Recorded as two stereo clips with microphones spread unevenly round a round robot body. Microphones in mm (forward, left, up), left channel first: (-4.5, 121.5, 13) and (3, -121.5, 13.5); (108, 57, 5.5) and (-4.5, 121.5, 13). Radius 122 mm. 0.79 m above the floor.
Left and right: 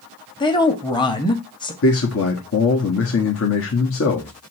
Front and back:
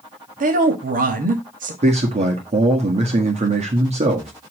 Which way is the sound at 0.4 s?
165° left.